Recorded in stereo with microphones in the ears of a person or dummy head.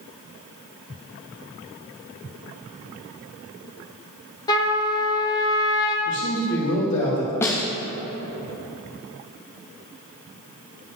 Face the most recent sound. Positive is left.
turn(degrees=15)  # may be behind; listen again after turning